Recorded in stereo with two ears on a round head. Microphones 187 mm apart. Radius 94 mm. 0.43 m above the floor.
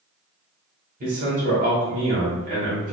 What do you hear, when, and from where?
1.0 s a man speaking: 40° right (ahead or behind), 1.3 m